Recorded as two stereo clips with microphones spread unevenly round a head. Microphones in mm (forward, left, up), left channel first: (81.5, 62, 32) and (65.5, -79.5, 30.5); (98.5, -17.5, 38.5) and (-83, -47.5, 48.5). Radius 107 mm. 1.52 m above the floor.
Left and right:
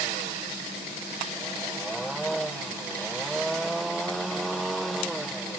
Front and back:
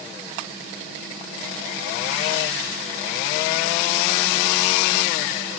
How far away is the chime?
I don't hear a chime.